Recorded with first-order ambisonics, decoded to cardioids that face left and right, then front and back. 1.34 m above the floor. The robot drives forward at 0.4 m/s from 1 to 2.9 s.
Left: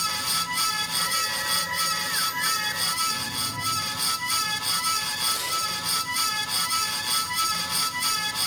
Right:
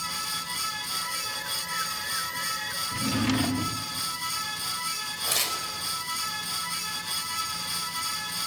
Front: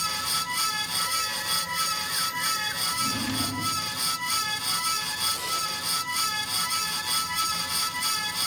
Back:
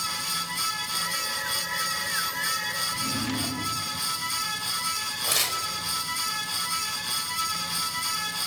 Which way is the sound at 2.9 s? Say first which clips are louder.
Left 1 dB, front 1 dB; 90° right.